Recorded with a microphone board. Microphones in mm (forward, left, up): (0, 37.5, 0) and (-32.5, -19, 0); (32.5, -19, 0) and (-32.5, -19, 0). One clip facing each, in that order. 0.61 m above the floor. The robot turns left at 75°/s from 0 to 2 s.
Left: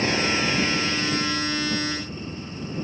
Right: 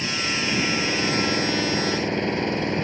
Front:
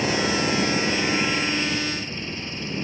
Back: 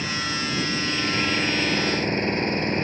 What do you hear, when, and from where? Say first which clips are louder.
0.0 s an engine running: left 3 dB, front 5 dB; 10° left; by 2.8 s 140° right